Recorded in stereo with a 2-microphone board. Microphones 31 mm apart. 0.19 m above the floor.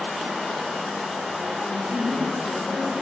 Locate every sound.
1.6 s a woman speaking: 20° right (ahead or behind), 2.5 m